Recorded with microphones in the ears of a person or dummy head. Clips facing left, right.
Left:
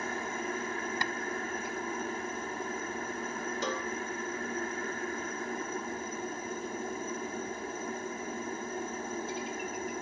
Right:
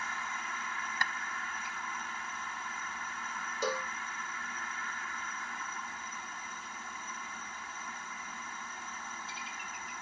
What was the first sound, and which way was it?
A helicopter, 30° left (ahead or behind).